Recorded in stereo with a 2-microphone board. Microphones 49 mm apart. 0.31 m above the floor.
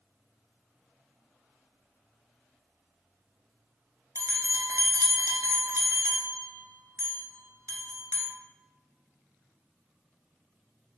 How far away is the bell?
About 0.7 m.